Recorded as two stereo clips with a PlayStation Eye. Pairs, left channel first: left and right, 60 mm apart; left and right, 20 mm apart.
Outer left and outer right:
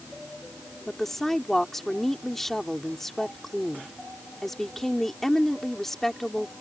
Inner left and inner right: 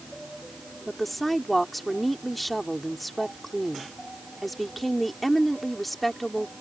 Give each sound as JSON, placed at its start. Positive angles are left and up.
{"t": 0.9, "sound": "a woman speaking", "side_deg": 5}